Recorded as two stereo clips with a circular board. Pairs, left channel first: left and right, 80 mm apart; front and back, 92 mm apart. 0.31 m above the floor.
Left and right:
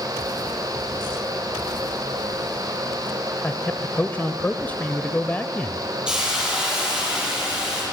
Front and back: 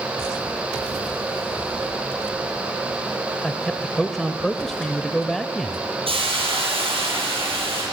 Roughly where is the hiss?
Behind.